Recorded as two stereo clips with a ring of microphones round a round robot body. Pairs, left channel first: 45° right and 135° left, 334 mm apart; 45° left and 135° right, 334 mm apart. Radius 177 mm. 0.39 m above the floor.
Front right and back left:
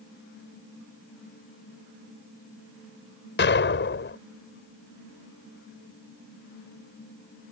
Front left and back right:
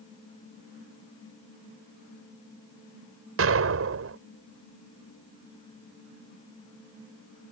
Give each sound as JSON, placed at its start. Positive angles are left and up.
{"t": 3.4, "sound": "an explosion", "azimuth_deg": -95}